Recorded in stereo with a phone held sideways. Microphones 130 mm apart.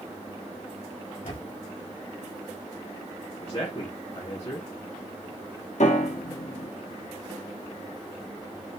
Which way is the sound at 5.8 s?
60° left (ahead or behind).